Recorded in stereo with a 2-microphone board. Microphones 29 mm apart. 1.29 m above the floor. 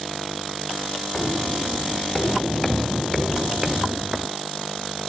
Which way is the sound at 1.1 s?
35° left (ahead or behind).